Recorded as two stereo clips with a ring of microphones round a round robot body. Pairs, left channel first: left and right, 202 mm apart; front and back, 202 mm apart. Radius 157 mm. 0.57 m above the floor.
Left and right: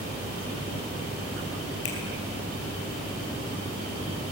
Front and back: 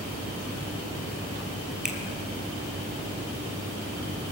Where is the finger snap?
95° left, 3.5 m.